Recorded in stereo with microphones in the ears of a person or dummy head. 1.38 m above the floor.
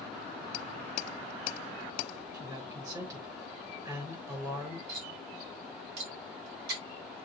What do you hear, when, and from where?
2.3 s a man speaking: 20° right (ahead or behind), 5 m
4.9 s cutlery clinking: 55° right (ahead or behind), 4 m